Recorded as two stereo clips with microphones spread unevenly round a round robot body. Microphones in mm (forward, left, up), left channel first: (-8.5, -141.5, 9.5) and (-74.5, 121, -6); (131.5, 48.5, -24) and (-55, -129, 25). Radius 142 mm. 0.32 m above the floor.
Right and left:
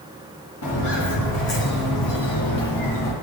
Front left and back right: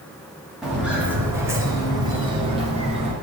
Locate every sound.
0.6 s footsteps: 50° right, 4.5 m; by 3.1 s 75° right, 5 m